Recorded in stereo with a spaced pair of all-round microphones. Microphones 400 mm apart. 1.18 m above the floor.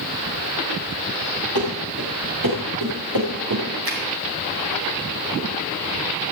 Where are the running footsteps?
60° right (ahead or behind), 6.5 m.